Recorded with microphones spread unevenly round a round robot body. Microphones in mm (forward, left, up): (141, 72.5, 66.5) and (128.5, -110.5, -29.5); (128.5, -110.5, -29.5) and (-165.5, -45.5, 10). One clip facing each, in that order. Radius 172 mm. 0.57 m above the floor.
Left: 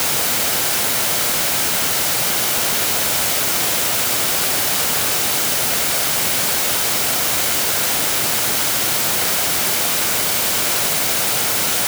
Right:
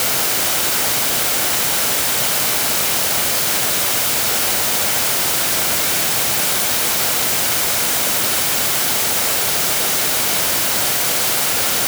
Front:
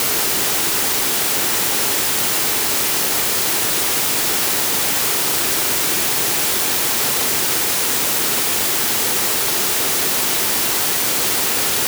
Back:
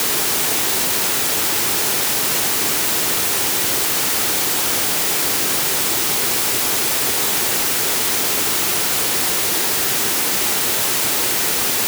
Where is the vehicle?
I don't hear a vehicle.